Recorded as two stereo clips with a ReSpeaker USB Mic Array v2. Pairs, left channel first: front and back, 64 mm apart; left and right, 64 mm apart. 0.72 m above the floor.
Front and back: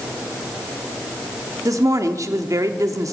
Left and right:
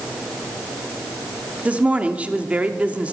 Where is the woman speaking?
155° right, 1.1 m.